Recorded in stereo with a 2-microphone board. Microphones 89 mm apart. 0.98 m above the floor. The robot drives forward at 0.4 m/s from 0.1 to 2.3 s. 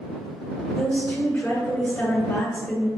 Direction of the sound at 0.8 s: 15° left (ahead or behind).